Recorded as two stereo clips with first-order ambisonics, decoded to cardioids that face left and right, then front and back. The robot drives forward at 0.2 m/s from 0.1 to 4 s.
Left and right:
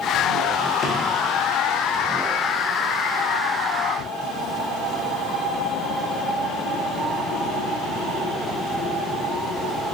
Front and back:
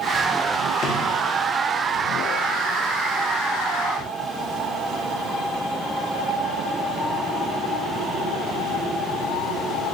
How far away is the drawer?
About 0.5 m.